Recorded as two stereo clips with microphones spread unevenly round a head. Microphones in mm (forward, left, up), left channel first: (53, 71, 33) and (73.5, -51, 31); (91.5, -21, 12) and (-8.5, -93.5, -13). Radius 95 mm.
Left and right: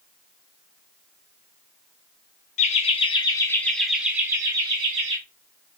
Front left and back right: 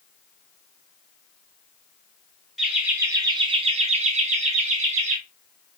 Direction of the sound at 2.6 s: 130° left.